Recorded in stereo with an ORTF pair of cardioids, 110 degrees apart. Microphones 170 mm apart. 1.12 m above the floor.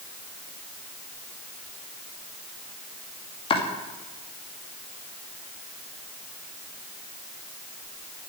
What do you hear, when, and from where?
3.5 s chopping: 35° left, 2.5 m